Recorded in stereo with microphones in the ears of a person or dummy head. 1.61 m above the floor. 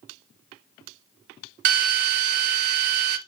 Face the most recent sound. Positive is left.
turn(degrees=-45)  # may be behind; listen again after turning